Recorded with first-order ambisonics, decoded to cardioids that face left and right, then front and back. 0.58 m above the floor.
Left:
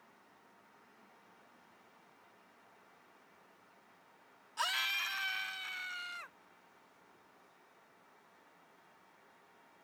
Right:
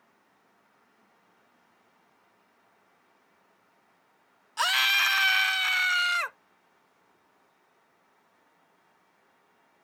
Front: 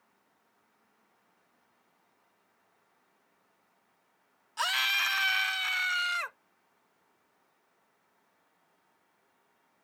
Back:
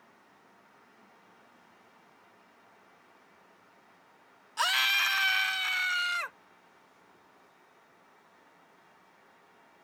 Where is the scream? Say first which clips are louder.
Right 12 dB, back 2 dB; 100° right; by 6.4 s 85° right.